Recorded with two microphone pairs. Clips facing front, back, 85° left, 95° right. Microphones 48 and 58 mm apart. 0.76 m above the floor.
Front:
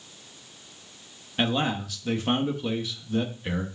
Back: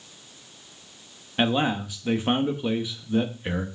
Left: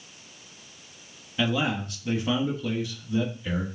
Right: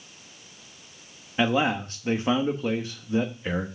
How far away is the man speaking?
About 1.3 m.